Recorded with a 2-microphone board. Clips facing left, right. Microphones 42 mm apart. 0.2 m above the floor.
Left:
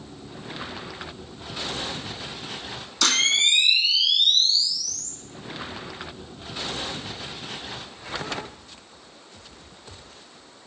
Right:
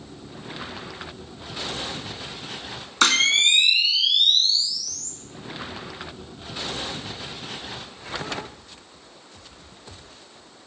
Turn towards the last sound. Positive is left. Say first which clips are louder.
# right 3 dB
turn(degrees=-50)  # may be behind; listen again after turning